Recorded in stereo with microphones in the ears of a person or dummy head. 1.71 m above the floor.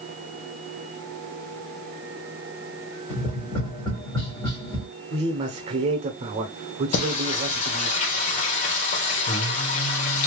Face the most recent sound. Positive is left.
turn(degrees=45)  # may be behind; listen again after turning